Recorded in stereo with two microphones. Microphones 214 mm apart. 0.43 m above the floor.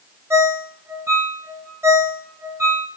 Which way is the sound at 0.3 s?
10° right (ahead or behind).